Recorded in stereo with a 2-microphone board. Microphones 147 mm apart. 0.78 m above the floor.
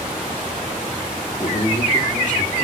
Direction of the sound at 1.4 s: 45° left (ahead or behind).